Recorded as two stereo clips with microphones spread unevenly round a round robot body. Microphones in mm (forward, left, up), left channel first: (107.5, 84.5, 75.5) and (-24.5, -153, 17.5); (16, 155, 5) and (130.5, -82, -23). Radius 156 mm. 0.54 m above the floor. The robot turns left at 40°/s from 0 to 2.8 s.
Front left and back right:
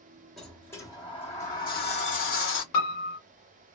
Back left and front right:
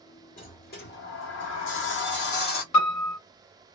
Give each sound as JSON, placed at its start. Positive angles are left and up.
{"t": 0.4, "sound": "a sliding door", "azimuth_deg": 170, "distance_m": 1.1}
{"t": 2.7, "sound": "a piano", "azimuth_deg": 95, "distance_m": 0.7}